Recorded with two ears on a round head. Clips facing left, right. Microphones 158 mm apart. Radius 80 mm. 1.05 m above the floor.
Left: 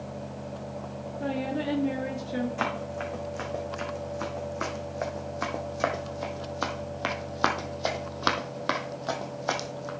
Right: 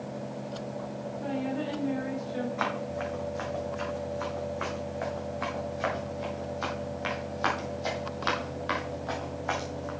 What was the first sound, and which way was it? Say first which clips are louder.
A woman speaking: left 2 dB; 70° left (ahead or behind).